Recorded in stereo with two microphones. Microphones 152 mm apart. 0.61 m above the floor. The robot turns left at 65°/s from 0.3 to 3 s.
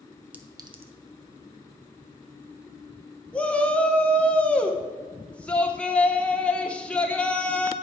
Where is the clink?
10° right (ahead or behind), 0.7 m; by 0.9 s 45° right (ahead or behind), 0.7 m.